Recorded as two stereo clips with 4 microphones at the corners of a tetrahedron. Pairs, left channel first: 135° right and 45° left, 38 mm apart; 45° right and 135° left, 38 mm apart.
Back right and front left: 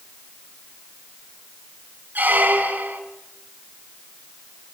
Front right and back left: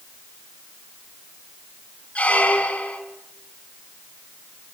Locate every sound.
2.1 s a squeak: 5° left, 3 m